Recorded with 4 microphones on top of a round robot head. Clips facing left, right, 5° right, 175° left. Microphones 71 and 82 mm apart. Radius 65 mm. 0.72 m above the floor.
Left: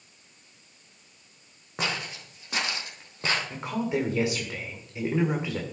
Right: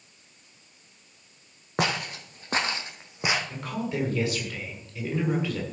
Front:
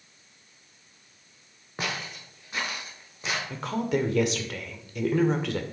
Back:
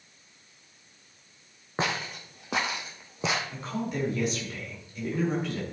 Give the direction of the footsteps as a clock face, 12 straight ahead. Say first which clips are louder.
Right 4 dB, back 3 dB; 4 o'clock.